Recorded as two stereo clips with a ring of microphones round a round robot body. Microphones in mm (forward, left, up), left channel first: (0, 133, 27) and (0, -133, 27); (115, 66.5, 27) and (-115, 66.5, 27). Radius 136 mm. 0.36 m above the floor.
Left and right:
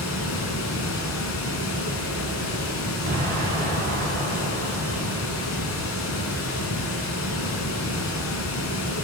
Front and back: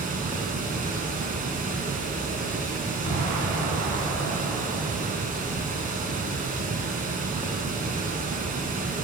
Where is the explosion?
140° right, 2 m.